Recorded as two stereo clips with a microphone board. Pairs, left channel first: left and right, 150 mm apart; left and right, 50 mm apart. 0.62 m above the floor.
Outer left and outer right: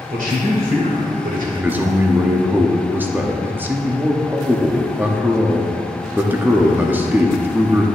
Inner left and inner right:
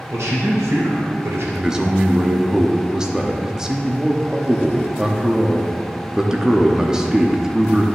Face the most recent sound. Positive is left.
turn(degrees=-15)  # may be behind; listen again after turning